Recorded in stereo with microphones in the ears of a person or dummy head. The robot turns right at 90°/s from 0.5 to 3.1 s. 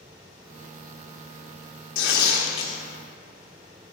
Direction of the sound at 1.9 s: 75° left.